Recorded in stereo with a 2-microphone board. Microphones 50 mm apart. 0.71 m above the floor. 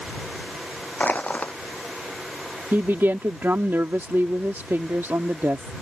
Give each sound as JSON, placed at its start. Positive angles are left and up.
{"t": 1.0, "sound": "crushing", "side_deg": 30}
{"t": 2.7, "sound": "a woman speaking", "side_deg": -50}